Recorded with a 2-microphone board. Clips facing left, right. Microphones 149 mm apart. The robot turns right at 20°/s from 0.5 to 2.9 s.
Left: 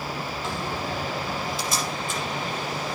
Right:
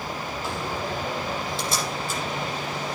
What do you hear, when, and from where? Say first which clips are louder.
0.4 s a door slam: right 1 dB; 5° right (ahead or behind), 7 m; by 2.5 s 45° right (ahead or behind), 7 m